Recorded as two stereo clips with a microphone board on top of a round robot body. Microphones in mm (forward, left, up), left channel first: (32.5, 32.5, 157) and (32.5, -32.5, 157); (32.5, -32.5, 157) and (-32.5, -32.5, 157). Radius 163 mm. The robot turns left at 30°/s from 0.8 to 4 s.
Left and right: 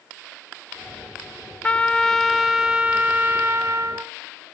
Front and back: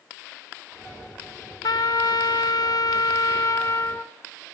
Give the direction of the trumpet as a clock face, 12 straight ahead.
11 o'clock.